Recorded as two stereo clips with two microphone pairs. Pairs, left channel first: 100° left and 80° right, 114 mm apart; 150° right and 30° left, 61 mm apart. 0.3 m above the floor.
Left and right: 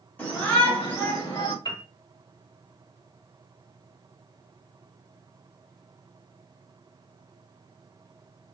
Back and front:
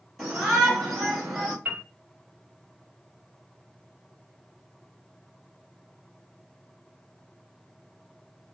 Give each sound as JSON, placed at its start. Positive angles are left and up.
{"t": 0.2, "sound": "a shout", "azimuth_deg": 125, "distance_m": 1.5}
{"t": 1.6, "sound": "a piano", "azimuth_deg": 75, "distance_m": 1.2}